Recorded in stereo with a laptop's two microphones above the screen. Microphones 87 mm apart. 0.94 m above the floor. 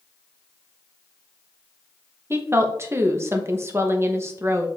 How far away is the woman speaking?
About 0.7 m.